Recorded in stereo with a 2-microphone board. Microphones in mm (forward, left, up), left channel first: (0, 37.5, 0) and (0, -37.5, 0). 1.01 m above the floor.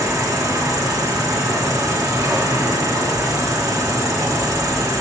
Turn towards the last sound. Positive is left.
turn(degrees=-45)  # may be behind; listen again after turning